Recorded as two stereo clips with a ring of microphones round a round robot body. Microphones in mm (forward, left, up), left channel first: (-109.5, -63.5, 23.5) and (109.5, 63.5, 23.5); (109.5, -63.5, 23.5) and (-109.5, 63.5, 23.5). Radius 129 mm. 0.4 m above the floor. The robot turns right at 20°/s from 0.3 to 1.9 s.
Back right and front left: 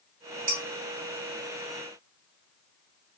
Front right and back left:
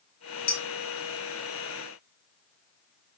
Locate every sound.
0.5 s dishes clattering: 25° left, 1.8 m